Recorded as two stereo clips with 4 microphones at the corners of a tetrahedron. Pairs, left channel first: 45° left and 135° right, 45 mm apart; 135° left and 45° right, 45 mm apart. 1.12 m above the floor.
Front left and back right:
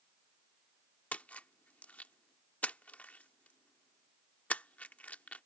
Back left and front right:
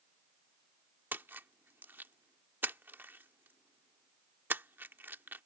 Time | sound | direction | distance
1.1 | a splash | 10° right | ?